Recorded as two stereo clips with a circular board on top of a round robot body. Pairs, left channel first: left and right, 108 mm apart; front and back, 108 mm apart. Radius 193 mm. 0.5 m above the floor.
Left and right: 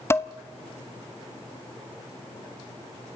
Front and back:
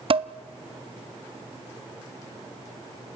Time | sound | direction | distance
0.1 | dishes clattering | 155° left | 0.9 m